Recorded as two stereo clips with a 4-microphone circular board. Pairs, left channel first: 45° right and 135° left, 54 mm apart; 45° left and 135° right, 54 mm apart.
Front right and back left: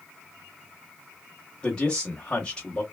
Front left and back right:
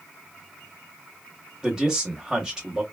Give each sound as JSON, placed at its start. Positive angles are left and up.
{"t": 1.6, "sound": "a man speaking", "azimuth_deg": -75, "distance_m": 0.9}